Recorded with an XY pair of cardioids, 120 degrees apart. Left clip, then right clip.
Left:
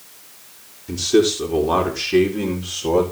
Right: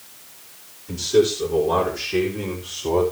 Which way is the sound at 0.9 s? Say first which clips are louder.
Left 1 dB; 40° left.